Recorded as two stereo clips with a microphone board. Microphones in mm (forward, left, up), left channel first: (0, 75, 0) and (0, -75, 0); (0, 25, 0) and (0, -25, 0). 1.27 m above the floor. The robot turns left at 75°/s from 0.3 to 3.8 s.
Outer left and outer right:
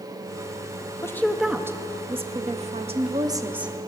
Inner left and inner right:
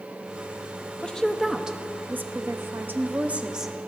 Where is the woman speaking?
30° left, 0.6 m; by 3.7 s 175° right, 0.6 m.